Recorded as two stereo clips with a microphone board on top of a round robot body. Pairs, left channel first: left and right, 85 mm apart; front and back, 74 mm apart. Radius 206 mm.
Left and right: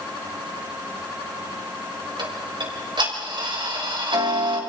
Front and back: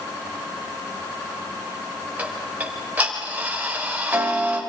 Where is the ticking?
110° right, 4.5 m.